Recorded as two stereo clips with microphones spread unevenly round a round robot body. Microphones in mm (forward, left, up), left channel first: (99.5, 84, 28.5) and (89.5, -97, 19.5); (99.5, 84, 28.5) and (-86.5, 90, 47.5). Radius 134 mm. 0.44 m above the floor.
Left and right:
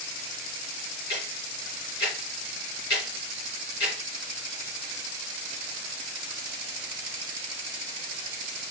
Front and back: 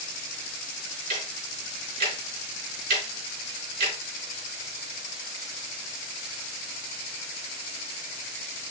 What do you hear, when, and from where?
1.1 s ticking: 140° left, 3 m